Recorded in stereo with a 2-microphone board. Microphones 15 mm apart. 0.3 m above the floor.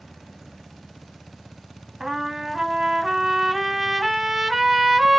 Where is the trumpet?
40° right (ahead or behind), 1.4 m.